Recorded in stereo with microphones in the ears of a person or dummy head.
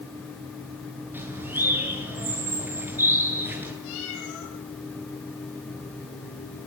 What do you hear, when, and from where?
1.1 s a bird: 10° right (ahead or behind), 7 m
3.8 s a cat meowing: 80° left, 9.5 m